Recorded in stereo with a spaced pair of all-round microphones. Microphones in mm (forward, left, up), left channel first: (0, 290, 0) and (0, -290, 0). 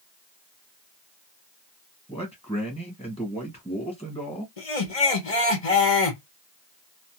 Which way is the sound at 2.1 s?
10° left (ahead or behind).